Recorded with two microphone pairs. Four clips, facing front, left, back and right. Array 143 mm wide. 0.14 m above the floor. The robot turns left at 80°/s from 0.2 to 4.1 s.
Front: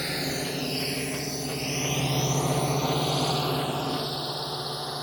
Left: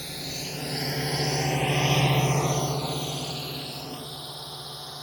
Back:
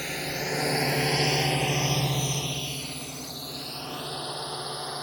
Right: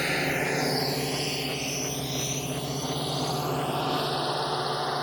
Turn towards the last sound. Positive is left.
turn(degrees=-90)